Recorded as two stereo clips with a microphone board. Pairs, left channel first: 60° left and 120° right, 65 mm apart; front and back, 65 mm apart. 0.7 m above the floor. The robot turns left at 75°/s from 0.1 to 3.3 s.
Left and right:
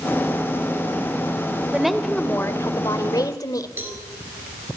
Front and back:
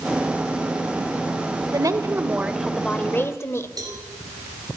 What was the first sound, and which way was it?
A woman speaking, 165° left.